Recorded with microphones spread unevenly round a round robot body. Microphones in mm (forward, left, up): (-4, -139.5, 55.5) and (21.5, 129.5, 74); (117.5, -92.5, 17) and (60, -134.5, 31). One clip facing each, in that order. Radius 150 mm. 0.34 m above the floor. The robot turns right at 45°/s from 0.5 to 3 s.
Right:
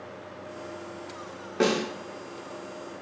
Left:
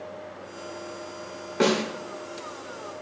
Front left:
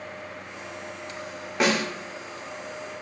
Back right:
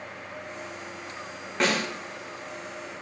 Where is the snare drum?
10° right, 0.6 m; by 1.8 s straight ahead, 0.6 m.